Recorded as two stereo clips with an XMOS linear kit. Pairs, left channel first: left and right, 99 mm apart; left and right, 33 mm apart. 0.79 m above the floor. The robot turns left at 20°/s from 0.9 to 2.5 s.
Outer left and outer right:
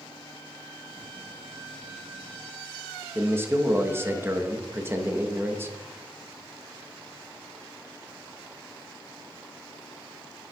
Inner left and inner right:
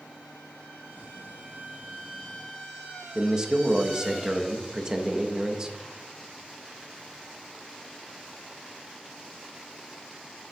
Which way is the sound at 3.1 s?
25° right (ahead or behind).